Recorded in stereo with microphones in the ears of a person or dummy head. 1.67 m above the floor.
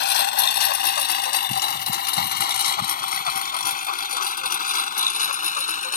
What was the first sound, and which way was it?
A lawn mower, 60° left (ahead or behind).